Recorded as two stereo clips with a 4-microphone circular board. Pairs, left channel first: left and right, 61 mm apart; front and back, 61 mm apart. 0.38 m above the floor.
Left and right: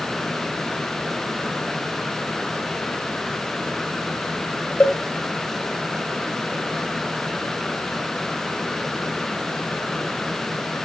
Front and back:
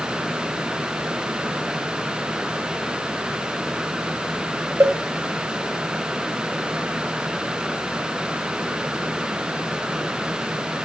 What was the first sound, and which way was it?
A cowbell, 150° left.